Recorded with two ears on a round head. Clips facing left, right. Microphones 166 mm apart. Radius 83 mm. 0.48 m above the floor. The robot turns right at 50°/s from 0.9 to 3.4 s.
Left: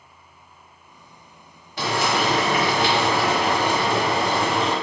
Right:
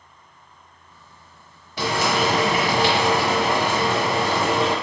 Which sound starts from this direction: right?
Frying, at 1.8 s.